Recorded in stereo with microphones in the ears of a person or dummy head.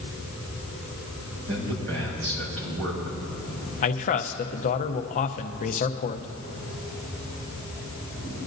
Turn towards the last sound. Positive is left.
turn(degrees=35)  # may be behind; listen again after turning